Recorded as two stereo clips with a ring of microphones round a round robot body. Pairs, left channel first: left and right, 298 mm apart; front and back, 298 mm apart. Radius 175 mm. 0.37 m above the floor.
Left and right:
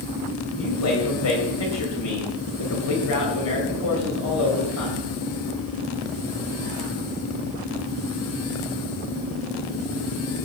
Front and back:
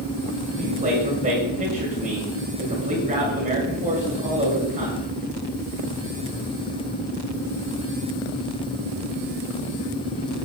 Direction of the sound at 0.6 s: 115° left.